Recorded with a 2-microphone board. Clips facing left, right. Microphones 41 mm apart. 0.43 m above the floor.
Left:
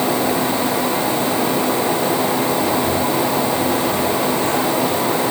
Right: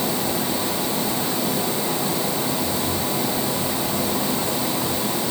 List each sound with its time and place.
Only background noise.